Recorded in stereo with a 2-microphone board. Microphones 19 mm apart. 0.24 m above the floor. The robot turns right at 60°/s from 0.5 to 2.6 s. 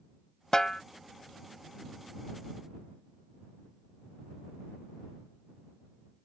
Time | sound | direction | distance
0.5 | a snare drum | 30° left (ahead or behind) | ?